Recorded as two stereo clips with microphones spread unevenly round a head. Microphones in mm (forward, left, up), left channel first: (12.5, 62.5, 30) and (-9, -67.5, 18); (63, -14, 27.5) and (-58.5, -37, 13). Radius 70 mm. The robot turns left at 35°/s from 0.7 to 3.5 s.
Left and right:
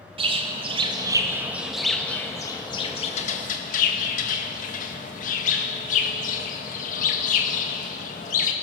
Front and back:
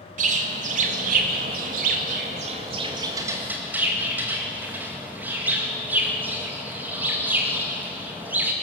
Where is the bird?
150° right, 1.9 m; by 8.5 s 110° left, 1.9 m.